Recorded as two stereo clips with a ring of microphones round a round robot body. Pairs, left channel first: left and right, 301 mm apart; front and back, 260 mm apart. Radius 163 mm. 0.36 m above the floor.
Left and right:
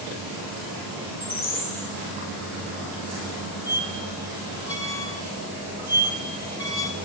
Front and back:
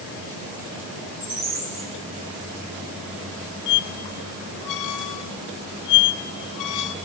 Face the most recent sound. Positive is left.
turn(degrees=10)